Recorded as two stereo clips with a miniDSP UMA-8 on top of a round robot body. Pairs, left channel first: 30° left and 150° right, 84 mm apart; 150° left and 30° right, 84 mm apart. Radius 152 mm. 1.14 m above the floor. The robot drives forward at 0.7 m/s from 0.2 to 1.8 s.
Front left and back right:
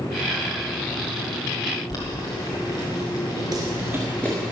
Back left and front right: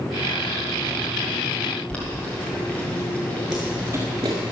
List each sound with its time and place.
1.9 s boiling: 75° left, 1.3 m
3.5 s running footsteps: 115° right, 1.2 m; by 4.5 s 20° right, 1.2 m